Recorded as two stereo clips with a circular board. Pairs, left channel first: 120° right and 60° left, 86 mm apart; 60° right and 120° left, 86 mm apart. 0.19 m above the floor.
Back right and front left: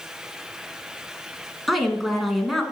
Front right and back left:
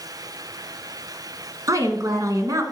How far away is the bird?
I don't hear a bird.